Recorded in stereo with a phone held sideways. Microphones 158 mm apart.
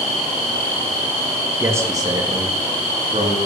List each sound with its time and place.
1.6 s a man speaking: 15° right (ahead or behind), 2 m; by 3.4 s 40° right (ahead or behind), 3.5 m